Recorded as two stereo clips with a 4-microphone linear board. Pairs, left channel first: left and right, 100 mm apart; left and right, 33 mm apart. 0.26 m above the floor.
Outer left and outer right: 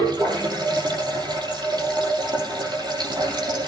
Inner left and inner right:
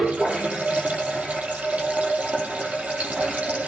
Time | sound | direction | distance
0.0 | running water | 50° right (ahead or behind) | 6.5 m